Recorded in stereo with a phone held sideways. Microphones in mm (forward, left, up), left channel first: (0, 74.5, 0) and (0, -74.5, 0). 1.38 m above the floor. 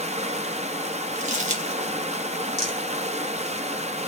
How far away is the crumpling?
About 2.5 m.